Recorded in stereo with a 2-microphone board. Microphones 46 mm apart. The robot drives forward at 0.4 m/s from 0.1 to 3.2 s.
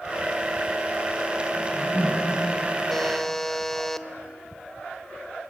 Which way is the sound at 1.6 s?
70° right (ahead or behind).